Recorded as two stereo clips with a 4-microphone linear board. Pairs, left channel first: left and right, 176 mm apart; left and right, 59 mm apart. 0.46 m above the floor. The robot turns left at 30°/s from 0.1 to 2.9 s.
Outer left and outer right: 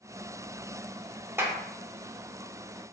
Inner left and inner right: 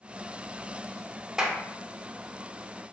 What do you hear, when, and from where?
1.4 s a clap: 15° right (ahead or behind), 0.6 m